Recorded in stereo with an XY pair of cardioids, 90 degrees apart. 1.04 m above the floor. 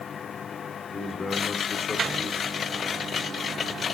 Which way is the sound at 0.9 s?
35° left.